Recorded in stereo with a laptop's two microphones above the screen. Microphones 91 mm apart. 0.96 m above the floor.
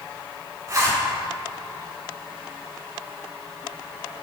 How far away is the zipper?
About 2.5 m.